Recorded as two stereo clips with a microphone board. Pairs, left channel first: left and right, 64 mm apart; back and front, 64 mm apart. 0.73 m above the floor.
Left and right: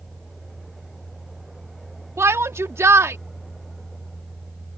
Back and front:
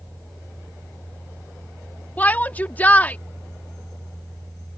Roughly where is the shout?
Behind right.